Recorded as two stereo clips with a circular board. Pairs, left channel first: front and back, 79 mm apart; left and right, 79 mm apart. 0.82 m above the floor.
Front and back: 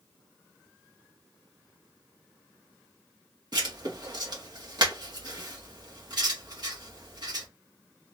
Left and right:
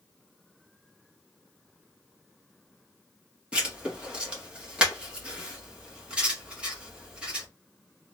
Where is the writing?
165° right, 1.2 m.